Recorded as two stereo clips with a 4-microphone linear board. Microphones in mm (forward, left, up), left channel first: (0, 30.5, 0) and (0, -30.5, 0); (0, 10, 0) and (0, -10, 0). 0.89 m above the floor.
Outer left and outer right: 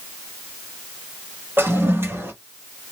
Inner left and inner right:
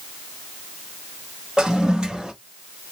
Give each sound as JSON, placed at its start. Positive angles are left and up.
{"t": 1.6, "sound": "a toilet flushing", "side_deg": -40, "distance_m": 1.4}